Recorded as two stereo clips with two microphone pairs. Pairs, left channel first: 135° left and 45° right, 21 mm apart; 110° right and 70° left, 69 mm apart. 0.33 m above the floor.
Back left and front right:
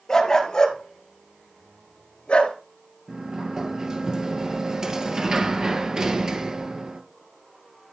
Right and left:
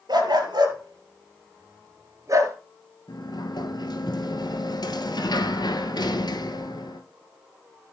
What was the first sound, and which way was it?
A dog barking, 70° left.